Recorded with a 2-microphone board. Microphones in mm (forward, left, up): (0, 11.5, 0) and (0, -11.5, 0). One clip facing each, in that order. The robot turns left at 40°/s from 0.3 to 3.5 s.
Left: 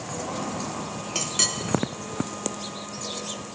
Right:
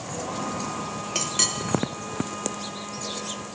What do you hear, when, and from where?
1.1 s a clink: 5° right (ahead or behind), 0.6 m; by 1.5 s 5° left (ahead or behind), 0.6 m